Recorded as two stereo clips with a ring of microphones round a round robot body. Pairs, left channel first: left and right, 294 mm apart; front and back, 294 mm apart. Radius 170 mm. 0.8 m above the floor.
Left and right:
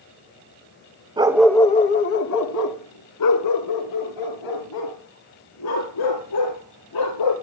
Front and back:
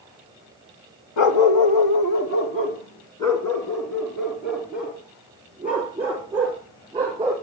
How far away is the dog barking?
About 1.1 m.